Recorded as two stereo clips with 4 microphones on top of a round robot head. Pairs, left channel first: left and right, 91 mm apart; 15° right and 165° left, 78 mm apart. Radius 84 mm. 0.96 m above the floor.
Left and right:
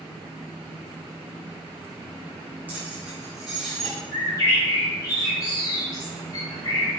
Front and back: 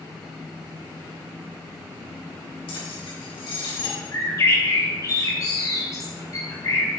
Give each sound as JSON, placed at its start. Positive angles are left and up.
{"t": 2.7, "sound": "keys jangling", "azimuth_deg": -15, "distance_m": 4.5}
{"t": 4.1, "sound": "a bird", "azimuth_deg": 30, "distance_m": 3.5}